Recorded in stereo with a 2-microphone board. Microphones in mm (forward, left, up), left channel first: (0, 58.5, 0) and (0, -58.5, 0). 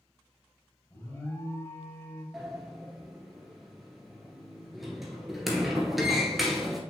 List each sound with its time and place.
0.9 s an alarm: 20° left (ahead or behind), 2 m
2.3 s a sliding door: centre (ahead or behind), 1.5 m